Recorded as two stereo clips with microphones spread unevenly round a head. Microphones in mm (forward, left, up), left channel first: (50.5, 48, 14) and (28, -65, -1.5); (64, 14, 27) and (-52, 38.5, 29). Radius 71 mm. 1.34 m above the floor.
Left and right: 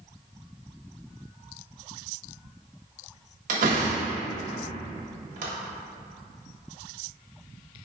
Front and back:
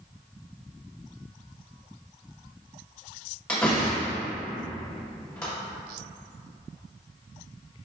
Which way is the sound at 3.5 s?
95° right.